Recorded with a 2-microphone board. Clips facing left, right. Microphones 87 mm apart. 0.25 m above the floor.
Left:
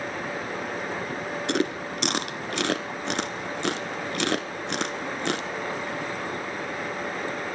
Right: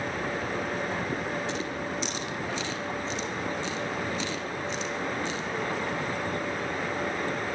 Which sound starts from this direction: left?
Chewing, at 1.5 s.